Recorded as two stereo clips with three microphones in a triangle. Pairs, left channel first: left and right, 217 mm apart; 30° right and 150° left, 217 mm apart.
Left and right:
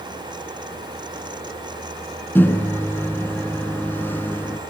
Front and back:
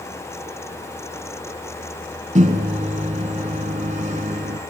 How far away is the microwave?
About 1.1 m.